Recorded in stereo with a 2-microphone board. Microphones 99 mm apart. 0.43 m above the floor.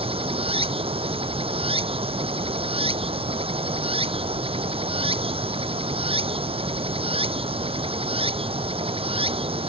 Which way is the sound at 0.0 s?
70° right (ahead or behind).